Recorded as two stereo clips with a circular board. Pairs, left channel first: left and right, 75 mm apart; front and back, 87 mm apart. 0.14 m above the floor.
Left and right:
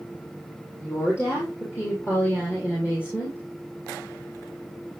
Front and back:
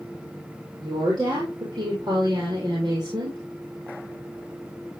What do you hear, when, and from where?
0.8 s a woman speaking: 145° left, 4.5 m; by 3.4 s 150° left, 2.5 m